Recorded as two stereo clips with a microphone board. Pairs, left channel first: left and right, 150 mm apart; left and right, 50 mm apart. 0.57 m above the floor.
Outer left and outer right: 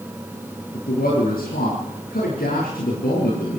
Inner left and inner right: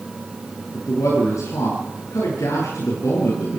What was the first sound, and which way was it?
A man speaking, 80° left.